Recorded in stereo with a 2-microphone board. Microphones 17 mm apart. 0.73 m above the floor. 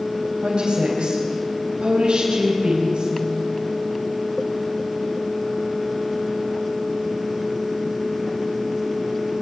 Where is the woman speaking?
80° right, 4 m.